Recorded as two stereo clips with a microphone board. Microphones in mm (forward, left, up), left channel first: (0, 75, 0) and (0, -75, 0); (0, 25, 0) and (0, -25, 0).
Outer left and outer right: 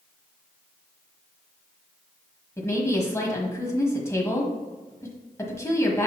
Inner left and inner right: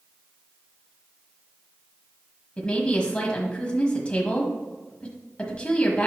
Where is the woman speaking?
20° left (ahead or behind), 1.4 m.